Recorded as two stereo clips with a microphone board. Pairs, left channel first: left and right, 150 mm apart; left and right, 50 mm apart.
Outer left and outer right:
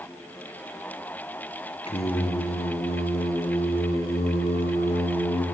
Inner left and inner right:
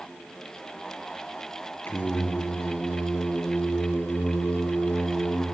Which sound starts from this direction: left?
Singing, at 1.9 s.